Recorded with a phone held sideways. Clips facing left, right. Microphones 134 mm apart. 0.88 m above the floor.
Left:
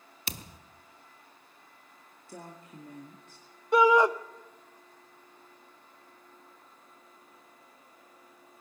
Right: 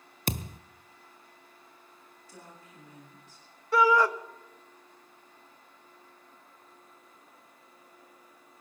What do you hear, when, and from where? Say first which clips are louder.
0.3 s a thud: right 10 dB; 50° right (ahead or behind), 0.7 m
2.3 s a woman speaking: left 6 dB; 55° left (ahead or behind), 2 m
3.7 s a shout: left 2 dB; 20° left (ahead or behind), 1.0 m